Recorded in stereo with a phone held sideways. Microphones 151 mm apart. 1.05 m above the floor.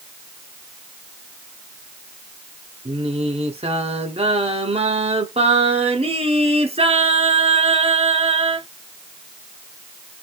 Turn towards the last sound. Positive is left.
turn(degrees=-40)  # may be behind; listen again after turning